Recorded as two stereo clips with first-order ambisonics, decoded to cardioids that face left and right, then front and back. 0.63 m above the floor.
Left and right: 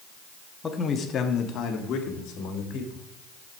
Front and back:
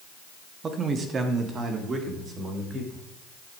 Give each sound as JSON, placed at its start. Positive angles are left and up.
{"t": 0.6, "sound": "a man speaking", "azimuth_deg": 145, "distance_m": 0.9}